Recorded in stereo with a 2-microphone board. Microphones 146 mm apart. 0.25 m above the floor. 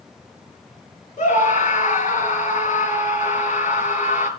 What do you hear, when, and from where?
1.2 s a scream: 55° left (ahead or behind), 4.5 m